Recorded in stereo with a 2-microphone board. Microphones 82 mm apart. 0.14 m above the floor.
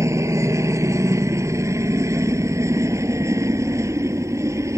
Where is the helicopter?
40° right (ahead or behind).